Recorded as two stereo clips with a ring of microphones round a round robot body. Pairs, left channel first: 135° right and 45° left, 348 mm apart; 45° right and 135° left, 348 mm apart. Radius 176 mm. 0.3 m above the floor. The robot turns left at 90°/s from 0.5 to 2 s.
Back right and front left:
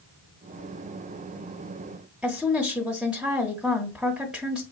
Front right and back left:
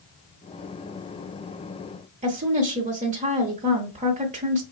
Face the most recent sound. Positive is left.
turn(degrees=130)